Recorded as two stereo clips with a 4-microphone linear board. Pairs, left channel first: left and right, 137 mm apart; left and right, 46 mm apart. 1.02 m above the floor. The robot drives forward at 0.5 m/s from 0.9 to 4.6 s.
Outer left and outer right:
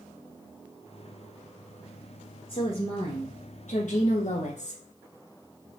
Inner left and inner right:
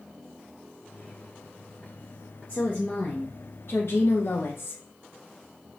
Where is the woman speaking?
40° left (ahead or behind), 1.2 m; by 4.8 s 60° left (ahead or behind), 0.9 m.